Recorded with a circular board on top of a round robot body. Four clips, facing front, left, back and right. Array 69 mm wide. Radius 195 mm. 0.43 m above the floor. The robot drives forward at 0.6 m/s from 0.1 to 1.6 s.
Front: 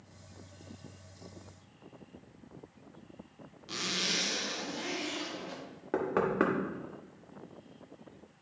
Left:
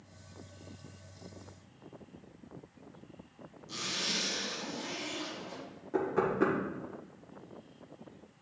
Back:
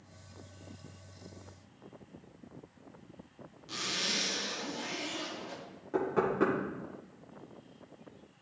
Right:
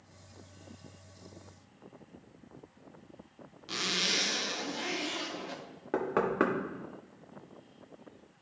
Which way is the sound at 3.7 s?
75° right.